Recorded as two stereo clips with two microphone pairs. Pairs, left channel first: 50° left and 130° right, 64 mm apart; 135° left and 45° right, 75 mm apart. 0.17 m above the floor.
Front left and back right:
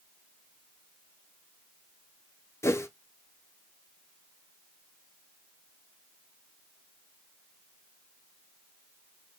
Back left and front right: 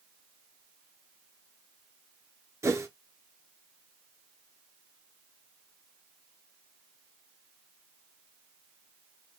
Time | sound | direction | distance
2.6 | a whoosh | 5° left | 0.5 m